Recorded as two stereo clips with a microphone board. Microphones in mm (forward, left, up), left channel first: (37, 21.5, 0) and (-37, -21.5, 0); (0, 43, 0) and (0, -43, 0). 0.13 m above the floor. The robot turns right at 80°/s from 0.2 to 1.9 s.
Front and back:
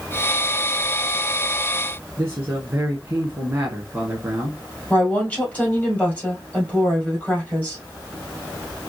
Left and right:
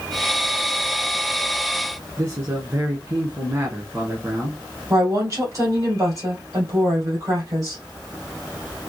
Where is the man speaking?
115° right, 1.2 m.